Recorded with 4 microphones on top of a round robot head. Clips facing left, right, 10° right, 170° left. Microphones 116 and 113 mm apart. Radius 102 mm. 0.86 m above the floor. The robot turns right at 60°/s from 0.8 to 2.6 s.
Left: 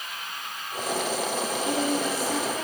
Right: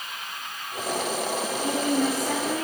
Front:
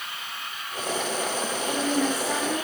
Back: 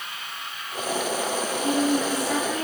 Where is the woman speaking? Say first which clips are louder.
Right 3 dB, back 3 dB; 130° right, 7.5 m; by 2.6 s 70° right, 7.5 m.